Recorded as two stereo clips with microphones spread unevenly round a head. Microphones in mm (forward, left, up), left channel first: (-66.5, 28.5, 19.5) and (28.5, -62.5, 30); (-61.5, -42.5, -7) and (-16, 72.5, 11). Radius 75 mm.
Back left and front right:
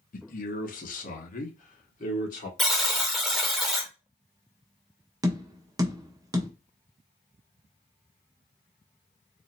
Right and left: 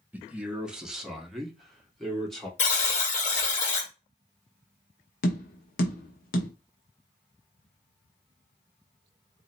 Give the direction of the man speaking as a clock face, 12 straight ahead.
7 o'clock.